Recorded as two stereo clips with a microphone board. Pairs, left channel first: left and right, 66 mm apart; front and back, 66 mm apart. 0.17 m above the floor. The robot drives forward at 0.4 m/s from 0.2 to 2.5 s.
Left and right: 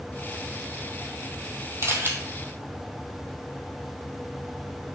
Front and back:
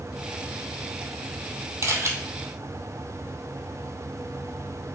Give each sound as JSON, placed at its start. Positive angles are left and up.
{"t": 1.8, "sound": "a camera shutter", "azimuth_deg": -135, "distance_m": 1.5}